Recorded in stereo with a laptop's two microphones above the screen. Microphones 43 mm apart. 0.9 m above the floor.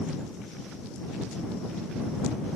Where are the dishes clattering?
I don't hear dishes clattering.